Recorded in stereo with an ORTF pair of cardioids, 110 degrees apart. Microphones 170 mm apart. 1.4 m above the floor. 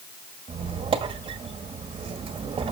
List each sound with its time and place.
0.5 s a squeak: 30° right, 1.8 m